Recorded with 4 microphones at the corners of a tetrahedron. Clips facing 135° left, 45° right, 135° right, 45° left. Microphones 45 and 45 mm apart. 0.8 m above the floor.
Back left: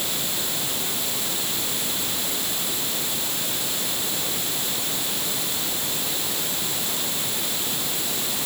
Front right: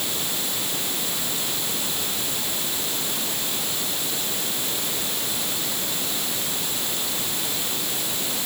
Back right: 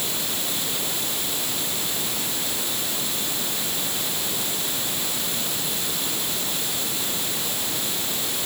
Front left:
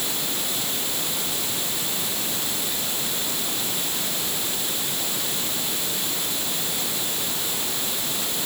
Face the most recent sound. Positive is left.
No sound to turn to.